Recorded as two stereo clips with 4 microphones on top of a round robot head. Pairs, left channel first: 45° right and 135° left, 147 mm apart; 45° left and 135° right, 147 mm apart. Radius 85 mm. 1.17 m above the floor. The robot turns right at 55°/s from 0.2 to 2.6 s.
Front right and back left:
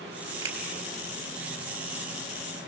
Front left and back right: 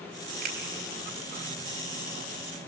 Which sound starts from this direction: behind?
A finger snap, at 0.4 s.